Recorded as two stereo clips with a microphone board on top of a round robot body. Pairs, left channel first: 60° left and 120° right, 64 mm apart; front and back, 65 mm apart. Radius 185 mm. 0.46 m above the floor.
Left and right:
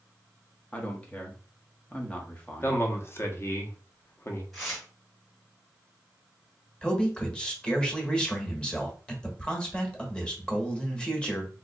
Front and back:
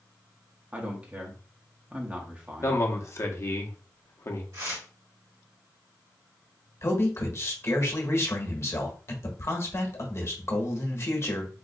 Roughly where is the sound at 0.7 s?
Behind left.